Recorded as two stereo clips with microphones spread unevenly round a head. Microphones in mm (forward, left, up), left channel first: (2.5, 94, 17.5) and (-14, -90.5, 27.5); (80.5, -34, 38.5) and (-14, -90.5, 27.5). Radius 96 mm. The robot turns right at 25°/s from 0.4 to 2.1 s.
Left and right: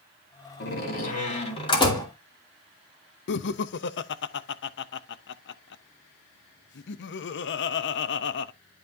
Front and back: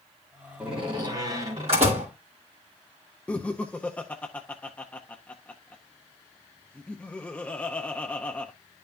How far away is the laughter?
About 0.5 m.